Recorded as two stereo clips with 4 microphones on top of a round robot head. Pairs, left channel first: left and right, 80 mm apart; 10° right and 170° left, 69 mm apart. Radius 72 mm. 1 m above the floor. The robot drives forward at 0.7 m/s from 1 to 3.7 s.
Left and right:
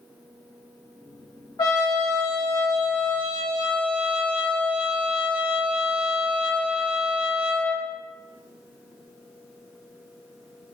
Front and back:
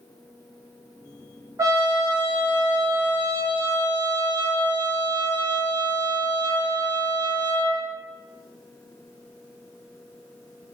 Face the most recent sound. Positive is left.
turn(degrees=160)